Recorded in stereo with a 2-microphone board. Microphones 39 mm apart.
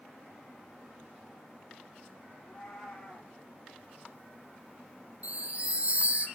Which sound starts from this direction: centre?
A cat meowing, at 2.4 s.